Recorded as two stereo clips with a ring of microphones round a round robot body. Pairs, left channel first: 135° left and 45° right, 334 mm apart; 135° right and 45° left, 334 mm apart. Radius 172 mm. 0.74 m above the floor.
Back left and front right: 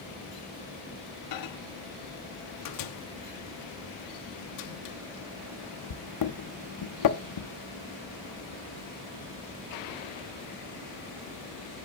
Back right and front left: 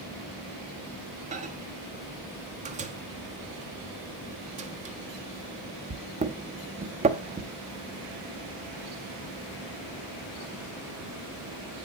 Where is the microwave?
115° left, 1.0 m.